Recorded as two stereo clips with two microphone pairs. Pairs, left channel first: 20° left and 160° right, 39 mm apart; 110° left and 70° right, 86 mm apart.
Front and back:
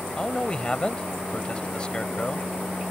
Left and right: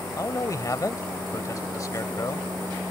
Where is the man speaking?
80° left.